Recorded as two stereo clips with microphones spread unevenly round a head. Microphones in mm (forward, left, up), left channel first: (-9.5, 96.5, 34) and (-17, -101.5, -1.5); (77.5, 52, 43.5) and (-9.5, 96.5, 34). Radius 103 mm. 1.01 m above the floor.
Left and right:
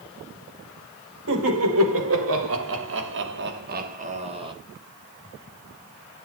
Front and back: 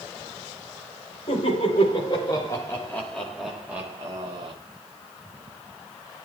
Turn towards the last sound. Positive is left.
turn(degrees=-155)